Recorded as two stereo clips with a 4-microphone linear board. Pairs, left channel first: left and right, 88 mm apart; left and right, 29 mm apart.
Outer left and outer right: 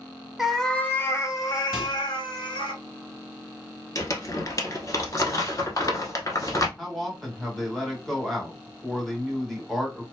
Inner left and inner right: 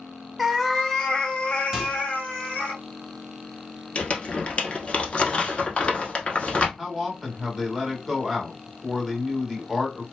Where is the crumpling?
40° left (ahead or behind), 0.7 m.